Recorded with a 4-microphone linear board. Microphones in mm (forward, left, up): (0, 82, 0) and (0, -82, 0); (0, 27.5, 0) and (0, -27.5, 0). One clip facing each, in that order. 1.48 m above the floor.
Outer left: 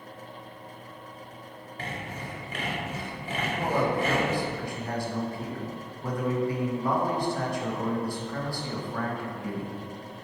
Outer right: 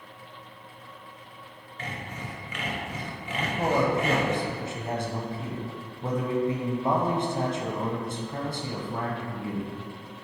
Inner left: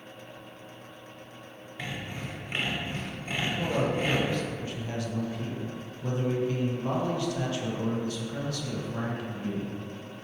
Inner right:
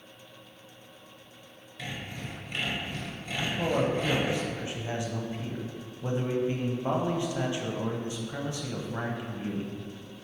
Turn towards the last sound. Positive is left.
turn(degrees=-25)  # may be behind; listen again after turning